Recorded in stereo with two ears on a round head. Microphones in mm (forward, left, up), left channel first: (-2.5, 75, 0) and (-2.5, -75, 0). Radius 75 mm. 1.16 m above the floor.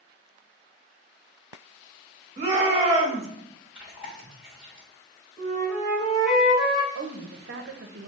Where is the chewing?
5° right (ahead or behind), 1.6 m.